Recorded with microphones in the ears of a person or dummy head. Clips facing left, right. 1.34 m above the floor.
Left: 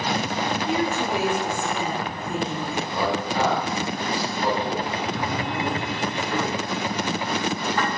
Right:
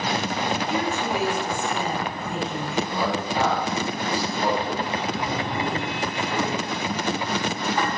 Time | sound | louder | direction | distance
0.7 | a woman speaking | left 1 dB | 75° left (ahead or behind) | 2 m
2.9 | a man speaking | even | 10° right (ahead or behind) | 1.5 m
5.1 | a drawer | even | 10° right (ahead or behind) | 2 m